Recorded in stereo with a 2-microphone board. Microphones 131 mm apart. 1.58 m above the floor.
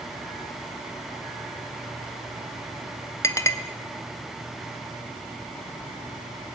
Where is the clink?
20° left (ahead or behind), 0.7 m.